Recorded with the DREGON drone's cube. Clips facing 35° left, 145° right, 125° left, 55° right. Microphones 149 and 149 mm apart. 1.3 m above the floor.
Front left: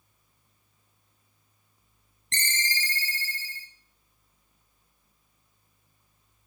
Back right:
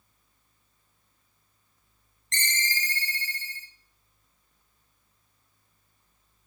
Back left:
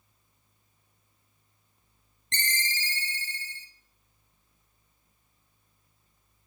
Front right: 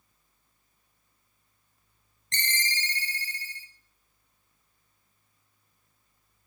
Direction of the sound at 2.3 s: 75° left.